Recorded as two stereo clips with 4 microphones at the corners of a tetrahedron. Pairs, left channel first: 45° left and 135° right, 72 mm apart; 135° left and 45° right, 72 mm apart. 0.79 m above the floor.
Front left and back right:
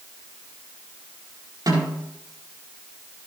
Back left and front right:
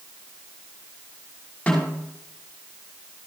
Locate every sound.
1.7 s a snare drum: 150° right, 5.5 m